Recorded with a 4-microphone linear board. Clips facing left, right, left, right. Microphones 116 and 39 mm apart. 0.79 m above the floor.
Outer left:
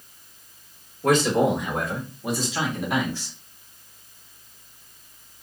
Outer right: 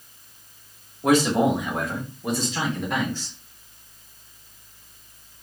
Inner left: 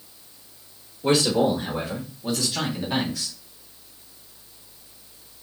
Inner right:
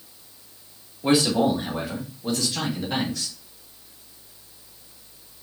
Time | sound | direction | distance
1.0 | a man speaking | 10° right (ahead or behind) | 2.0 m